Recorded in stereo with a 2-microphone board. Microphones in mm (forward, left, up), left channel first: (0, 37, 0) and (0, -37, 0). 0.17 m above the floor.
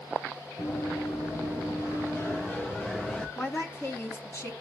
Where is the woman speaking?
35° left (ahead or behind), 1.8 m.